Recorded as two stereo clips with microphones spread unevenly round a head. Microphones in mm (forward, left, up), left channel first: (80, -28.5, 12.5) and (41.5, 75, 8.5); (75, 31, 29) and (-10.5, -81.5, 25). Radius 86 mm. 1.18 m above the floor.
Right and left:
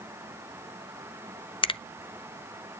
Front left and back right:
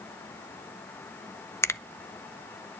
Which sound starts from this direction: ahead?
A finger snap, at 1.6 s.